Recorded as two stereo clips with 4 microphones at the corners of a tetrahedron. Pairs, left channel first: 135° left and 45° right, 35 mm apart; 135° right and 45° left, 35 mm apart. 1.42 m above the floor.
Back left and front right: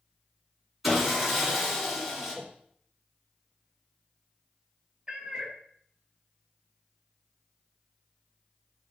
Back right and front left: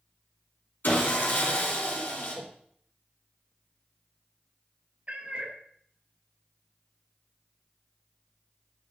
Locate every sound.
0.8 s sawing: 130° right, 2.5 m
2.3 s a whoosh: 25° left, 0.8 m
5.1 s a cat meowing: 15° left, 0.8 m